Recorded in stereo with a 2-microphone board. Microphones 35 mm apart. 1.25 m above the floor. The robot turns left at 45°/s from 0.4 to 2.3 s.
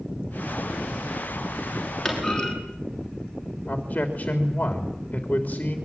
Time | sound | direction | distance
2.0 | a clunk | 5° left (ahead or behind) | 7.5 m
3.7 | a man speaking | 40° left (ahead or behind) | 3.5 m